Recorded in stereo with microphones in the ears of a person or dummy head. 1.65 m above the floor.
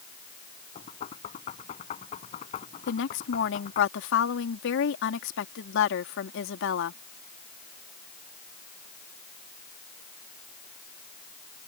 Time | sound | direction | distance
0.8 | knocking | 40° left (ahead or behind) | ?
2.9 | a woman speaking | 70° left (ahead or behind) | ?